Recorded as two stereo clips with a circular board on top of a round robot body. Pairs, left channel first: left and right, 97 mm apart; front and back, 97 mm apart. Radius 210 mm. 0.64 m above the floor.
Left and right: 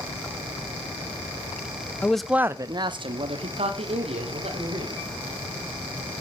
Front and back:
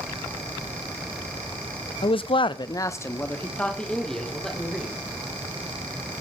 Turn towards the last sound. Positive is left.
turn(degrees=-90)